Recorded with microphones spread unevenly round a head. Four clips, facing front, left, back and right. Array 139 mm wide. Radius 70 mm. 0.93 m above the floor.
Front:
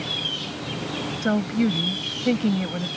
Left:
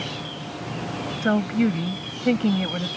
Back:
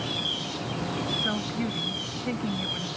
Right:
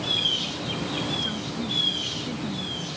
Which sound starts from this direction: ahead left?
A woman speaking, at 1.2 s.